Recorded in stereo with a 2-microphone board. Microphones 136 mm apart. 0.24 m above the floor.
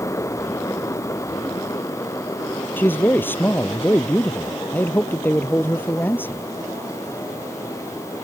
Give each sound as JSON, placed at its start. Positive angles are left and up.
{"t": 2.8, "sound": "a man speaking", "side_deg": 15}